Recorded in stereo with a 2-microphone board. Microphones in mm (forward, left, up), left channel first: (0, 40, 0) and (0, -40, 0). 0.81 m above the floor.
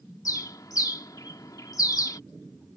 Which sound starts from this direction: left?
A bird, at 0.2 s.